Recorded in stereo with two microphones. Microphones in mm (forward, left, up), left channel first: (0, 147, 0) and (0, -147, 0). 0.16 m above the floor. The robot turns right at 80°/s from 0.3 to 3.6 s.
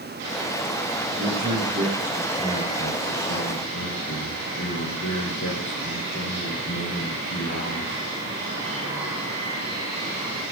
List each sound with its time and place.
1.1 s a man speaking: 85° right, 4 m; by 8.0 s 110° left, 4 m